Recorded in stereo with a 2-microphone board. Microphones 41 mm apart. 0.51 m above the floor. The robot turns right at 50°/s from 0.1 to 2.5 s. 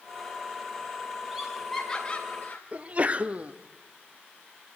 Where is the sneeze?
35° right (ahead or behind), 0.8 m.